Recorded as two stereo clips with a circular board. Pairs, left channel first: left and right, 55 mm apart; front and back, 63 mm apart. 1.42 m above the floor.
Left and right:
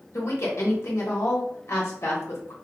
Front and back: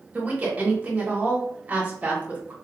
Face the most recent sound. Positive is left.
turn(degrees=115)